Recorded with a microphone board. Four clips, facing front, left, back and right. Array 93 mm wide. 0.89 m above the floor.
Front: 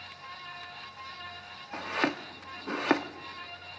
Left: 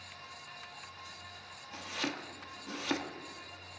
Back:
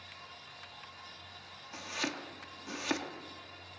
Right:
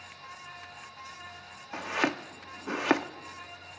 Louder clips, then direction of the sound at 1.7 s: Right 9 dB, front 8 dB; 50° right.